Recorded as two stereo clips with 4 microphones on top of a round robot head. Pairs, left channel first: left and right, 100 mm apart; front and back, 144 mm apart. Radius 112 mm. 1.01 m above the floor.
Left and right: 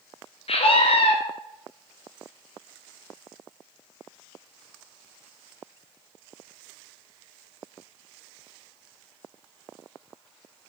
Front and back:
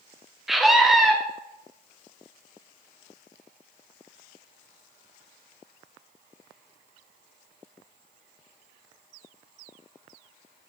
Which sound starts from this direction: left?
A scream, at 0.5 s.